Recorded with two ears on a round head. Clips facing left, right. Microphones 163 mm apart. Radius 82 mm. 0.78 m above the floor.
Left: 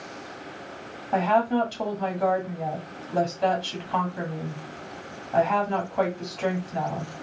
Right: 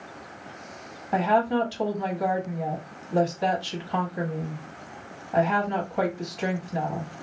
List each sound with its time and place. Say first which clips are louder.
1.1 s a woman speaking: even; 10° right (ahead or behind), 1.8 m